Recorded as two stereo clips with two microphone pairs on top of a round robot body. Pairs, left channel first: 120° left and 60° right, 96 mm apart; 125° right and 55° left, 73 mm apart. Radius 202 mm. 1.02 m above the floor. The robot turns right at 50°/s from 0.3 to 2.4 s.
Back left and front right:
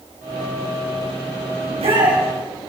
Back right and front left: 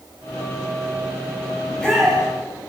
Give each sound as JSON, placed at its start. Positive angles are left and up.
{"t": 1.6, "sound": "a shout", "azimuth_deg": -50, "distance_m": 7.0}